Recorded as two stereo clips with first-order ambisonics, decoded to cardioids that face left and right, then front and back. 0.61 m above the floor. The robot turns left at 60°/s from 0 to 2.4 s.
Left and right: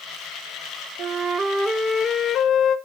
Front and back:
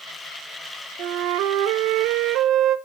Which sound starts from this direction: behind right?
A flute, at 1.0 s.